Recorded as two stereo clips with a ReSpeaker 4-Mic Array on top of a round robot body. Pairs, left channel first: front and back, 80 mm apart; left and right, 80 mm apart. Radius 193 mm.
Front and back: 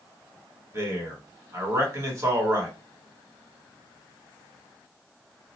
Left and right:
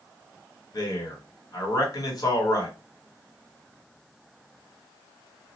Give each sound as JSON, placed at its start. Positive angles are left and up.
{"t": 0.7, "sound": "a man speaking", "azimuth_deg": 130, "distance_m": 1.4}